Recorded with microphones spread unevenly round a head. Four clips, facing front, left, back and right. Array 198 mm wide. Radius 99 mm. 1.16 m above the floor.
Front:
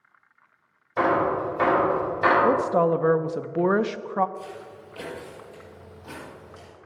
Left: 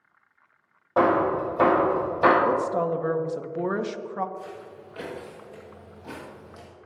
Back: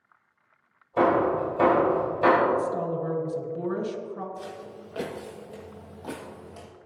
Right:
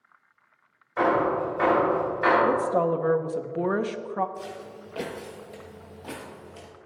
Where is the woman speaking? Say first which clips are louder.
Right 1 dB, front 5 dB; 20° right, 0.7 m.